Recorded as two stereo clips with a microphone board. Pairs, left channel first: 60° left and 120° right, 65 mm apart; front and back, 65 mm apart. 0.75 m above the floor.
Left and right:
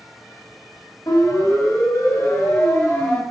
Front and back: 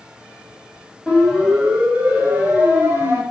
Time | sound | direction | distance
1.1 | a siren | 100° left | 6 m